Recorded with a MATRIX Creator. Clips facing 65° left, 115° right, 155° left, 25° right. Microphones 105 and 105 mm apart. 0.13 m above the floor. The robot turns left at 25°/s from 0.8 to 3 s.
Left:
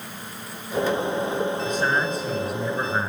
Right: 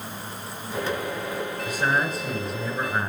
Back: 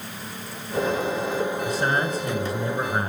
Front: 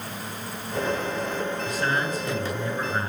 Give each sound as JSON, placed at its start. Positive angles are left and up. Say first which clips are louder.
{"t": 1.6, "sound": "a man speaking", "louder": "left 1 dB, back 2 dB", "azimuth_deg": 175, "distance_m": 1.8}